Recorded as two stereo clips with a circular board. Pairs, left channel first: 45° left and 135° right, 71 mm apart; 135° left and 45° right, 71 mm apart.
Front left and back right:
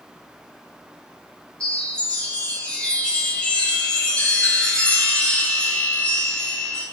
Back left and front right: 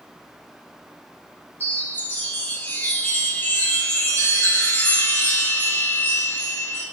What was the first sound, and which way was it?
A chime, 105° left.